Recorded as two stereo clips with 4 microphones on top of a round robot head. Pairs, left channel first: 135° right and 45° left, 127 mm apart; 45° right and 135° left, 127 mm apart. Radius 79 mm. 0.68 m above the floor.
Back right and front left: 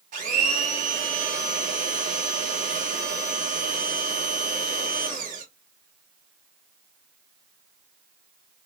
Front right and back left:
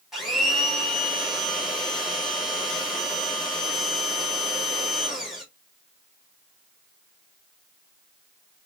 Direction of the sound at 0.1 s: 50° left.